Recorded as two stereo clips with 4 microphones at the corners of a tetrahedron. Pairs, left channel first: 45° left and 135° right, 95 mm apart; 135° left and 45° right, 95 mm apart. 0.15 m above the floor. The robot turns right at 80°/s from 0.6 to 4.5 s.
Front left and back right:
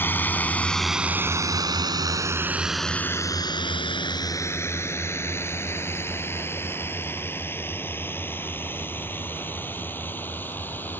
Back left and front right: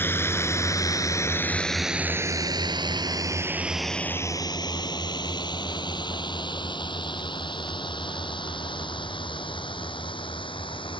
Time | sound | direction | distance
0.0 | a drone | 90° left | ?